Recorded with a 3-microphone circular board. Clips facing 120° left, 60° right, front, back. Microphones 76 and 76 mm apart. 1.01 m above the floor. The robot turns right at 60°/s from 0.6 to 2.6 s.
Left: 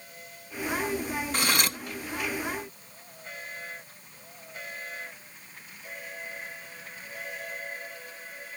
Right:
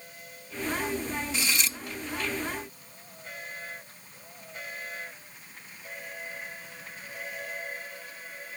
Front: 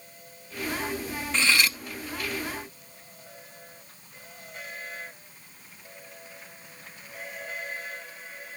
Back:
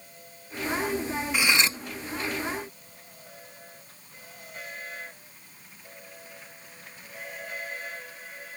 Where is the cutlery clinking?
105° left; by 1.8 s 130° left.